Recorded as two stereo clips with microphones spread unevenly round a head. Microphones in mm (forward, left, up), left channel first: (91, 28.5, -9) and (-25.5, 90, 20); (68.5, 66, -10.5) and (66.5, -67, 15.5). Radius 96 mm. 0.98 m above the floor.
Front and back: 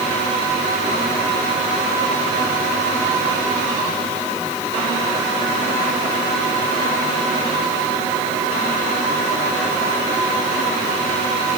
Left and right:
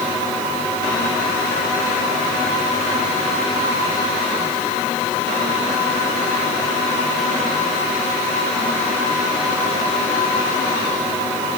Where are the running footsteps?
No running footsteps in this recording.